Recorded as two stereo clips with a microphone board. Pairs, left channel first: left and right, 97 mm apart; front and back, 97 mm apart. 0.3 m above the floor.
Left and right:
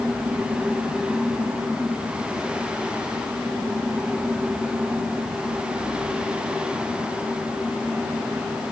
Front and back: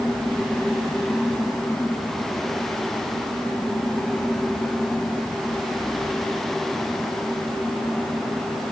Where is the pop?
No pop in this recording.